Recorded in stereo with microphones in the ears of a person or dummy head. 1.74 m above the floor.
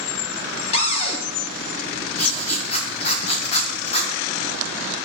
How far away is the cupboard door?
About 1.1 m.